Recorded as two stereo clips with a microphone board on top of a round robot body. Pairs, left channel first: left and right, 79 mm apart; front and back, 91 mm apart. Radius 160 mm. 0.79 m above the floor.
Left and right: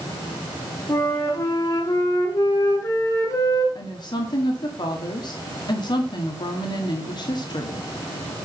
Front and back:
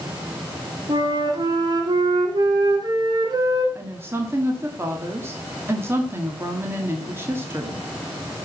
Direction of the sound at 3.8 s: 115° left.